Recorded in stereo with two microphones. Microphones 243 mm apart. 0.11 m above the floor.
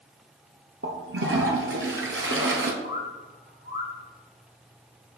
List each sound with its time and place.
0.8 s a toilet flushing: 55° right (ahead or behind), 0.6 m
2.8 s a bird: 45° left (ahead or behind), 0.5 m